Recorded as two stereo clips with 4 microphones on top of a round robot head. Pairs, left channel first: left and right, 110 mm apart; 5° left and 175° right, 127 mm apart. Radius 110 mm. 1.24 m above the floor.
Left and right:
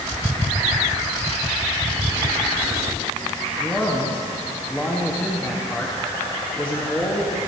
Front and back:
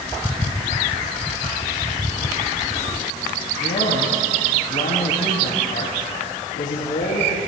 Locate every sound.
3.6 s a man speaking: 15° left, 3 m